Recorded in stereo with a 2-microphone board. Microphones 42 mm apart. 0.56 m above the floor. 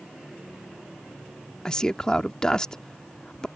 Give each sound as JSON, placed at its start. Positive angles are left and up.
{"t": 1.6, "sound": "a man speaking", "side_deg": 20}